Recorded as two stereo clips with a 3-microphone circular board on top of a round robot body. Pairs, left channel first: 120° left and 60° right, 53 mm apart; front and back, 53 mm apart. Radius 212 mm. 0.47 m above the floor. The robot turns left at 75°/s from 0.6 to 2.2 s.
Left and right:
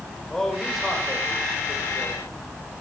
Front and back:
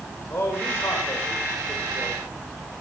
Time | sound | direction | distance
0.3 | a man speaking | 40° left | 3.5 m